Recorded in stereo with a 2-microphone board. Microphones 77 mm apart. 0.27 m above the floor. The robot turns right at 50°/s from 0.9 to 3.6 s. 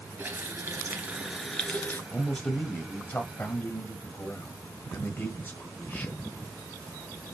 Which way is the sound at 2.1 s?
5° left (ahead or behind).